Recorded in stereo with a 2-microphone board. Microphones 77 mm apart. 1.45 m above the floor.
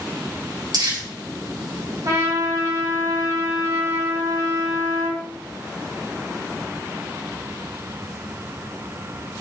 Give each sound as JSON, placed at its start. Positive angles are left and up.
{"t": 0.7, "sound": "crumpling", "side_deg": -60, "distance_m": 3.5}
{"t": 2.0, "sound": "a trumpet", "side_deg": -50, "distance_m": 3.5}